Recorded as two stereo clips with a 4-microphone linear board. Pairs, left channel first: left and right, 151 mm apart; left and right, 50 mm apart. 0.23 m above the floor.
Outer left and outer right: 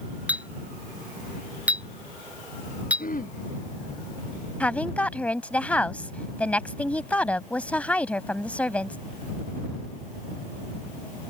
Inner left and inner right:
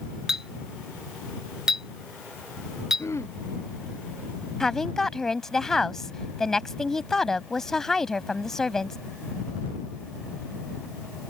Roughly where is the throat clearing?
Left.